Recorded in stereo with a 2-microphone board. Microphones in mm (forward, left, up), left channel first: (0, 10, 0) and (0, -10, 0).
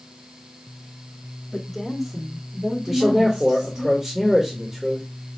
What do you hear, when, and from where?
1.5 s a woman speaking: 15° left (ahead or behind), 1.1 m; by 3.9 s 70° right (ahead or behind), 2.5 m
2.9 s a man speaking: 25° right (ahead or behind), 1.3 m